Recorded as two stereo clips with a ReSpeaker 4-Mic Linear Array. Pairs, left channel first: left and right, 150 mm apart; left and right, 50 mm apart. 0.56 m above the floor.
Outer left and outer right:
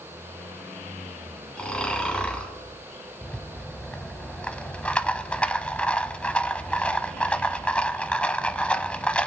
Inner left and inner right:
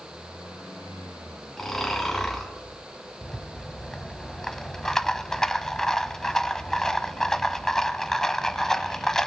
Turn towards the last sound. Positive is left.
turn(degrees=10)  # may be behind; listen again after turning